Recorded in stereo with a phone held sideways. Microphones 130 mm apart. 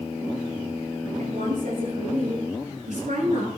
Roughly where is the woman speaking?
Right.